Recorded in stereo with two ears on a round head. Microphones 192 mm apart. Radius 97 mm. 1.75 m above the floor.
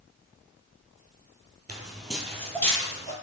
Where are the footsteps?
5° right (ahead or behind), 1.9 m; by 3.1 s 20° left (ahead or behind), 1.8 m.